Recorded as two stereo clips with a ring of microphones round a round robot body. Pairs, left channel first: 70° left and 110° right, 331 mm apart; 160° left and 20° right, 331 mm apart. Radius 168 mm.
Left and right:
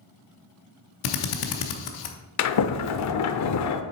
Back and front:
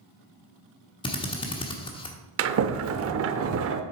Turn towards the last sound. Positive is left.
turn(degrees=25)